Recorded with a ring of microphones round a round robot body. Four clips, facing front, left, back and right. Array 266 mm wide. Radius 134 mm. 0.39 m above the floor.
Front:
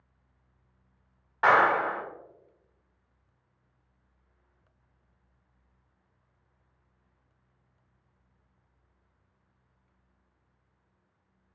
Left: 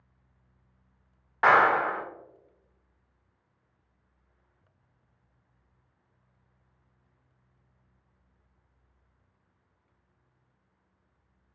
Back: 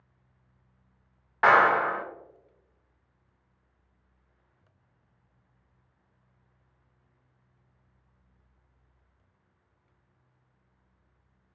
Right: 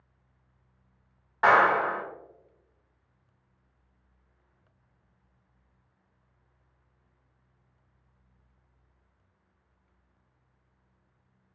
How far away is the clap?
About 0.8 m.